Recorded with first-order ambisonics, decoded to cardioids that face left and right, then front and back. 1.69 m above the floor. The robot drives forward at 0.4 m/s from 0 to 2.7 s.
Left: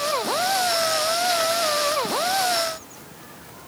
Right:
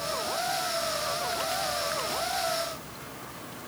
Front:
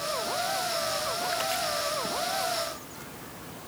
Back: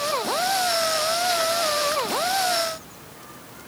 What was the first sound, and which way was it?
Only background noise.